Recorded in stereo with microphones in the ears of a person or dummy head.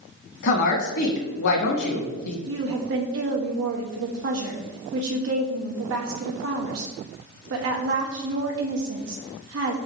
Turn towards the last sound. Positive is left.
turn(degrees=-65)  # may be behind; listen again after turning